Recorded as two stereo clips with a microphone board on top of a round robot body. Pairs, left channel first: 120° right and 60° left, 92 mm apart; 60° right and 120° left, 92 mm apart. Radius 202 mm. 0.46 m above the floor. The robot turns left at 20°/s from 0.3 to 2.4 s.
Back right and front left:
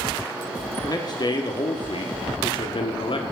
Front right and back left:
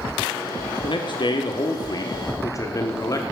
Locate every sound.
0.8 s a man speaking: 80° right, 1.2 m; by 3.2 s 110° right, 1.2 m